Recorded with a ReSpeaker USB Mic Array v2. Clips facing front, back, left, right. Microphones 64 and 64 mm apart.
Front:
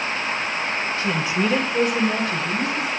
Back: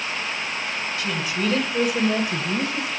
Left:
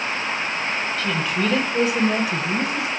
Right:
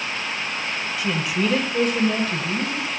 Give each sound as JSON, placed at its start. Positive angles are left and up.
{"t": 1.0, "sound": "a woman speaking", "azimuth_deg": -20, "distance_m": 1.4}